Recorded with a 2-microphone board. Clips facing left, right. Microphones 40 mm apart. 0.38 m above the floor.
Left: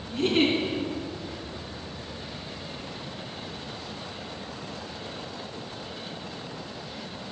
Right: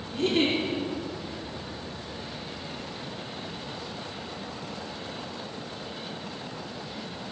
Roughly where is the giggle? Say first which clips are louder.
Left 2 dB; left.